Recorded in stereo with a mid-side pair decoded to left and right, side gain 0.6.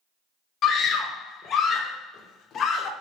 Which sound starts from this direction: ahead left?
A scream, at 0.6 s.